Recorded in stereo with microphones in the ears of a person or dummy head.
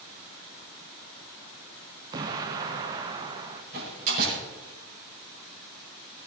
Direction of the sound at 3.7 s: 50° right (ahead or behind).